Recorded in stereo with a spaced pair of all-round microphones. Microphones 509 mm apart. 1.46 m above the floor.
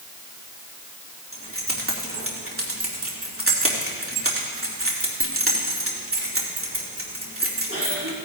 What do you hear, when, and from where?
1.3 s keys jangling: 25° right (ahead or behind), 2 m